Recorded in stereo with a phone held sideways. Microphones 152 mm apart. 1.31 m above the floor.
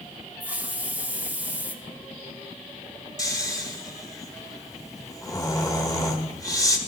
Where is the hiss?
10° right (ahead or behind), 1.2 m.